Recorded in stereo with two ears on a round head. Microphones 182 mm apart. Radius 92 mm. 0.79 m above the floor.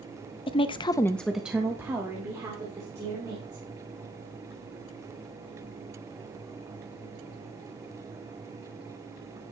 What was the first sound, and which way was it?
A woman speaking, 25° left (ahead or behind).